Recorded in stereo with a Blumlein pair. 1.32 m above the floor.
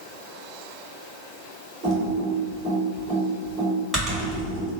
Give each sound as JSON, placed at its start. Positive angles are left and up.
{"t": 1.8, "sound": "typing on a keyboard", "azimuth_deg": -10, "distance_m": 1.7}